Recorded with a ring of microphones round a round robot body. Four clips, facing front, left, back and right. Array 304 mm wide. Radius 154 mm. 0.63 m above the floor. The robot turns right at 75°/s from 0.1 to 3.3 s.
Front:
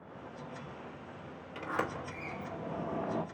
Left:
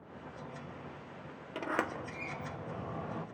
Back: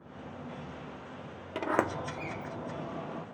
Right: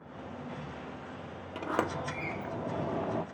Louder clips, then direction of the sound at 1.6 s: Right 3 dB, back 6 dB; straight behind.